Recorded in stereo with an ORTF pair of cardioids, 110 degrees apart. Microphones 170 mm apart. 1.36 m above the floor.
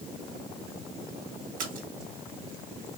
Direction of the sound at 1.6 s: 50° right.